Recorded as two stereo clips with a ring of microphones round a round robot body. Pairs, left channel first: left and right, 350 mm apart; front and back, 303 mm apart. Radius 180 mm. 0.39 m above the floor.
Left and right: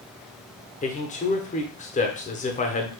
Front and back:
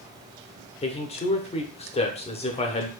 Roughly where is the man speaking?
Ahead left.